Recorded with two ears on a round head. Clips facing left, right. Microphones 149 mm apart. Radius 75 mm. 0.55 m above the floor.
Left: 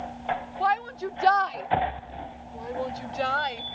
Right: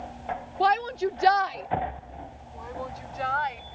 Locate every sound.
0.6 s a shout: 45° right (ahead or behind); by 3.6 s 40° left (ahead or behind)